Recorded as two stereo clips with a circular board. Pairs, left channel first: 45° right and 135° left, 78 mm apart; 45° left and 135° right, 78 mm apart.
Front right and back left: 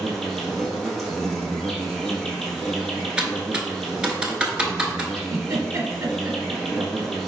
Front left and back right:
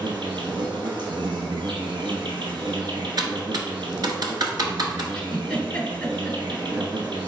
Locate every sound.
0.0 s an insect: 130° right, 1.0 m
3.2 s typing on a keyboard: 150° right, 0.8 m
5.2 s a giggle: 115° left, 1.0 m